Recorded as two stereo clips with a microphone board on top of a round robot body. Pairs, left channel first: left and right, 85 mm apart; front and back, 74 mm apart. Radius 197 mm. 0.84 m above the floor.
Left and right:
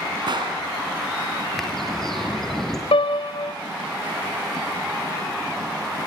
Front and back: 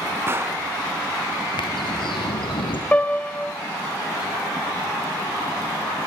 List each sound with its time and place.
0.3 s a gunshot: 125° right, 1.7 m
1.6 s a bird: 5° left, 3 m
2.9 s a piano: 70° left, 0.7 m